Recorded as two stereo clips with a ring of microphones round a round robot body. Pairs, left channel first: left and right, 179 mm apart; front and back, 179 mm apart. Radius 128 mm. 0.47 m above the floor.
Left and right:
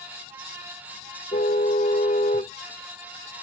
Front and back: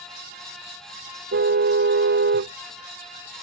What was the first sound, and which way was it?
A car horn, 155° left.